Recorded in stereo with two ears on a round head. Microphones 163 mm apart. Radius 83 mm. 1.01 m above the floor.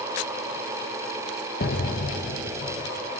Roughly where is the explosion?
Left.